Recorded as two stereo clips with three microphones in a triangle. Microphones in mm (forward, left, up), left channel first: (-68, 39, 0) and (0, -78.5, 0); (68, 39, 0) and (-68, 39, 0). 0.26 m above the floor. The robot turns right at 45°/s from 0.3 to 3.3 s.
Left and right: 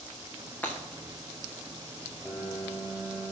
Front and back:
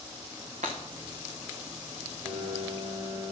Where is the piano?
145° right, 5 m; by 3.3 s 100° right, 5 m.